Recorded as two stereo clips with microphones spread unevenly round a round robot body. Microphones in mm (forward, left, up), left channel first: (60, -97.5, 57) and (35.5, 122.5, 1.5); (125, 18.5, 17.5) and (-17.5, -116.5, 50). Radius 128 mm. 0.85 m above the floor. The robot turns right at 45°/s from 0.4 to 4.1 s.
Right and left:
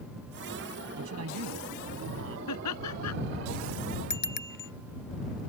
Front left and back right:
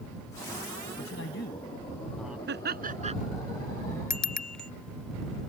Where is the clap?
I don't hear a clap.